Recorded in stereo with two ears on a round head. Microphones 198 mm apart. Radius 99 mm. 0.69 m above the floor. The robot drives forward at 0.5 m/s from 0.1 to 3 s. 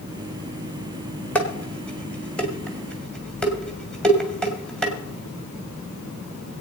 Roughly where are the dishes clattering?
Centre.